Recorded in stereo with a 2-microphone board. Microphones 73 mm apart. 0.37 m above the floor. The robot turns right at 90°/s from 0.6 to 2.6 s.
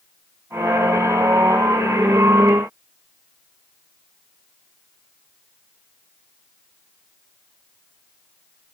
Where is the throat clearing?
No throat clearing in this recording.